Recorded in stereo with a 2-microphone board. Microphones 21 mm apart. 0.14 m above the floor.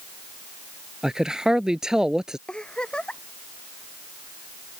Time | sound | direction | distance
1.0 | a man speaking | 35° right (ahead or behind) | ?
2.5 | a giggle | 55° left (ahead or behind) | ?